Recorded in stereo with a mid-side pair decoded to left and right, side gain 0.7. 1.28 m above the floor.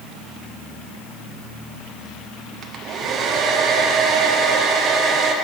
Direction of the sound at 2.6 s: 45° right.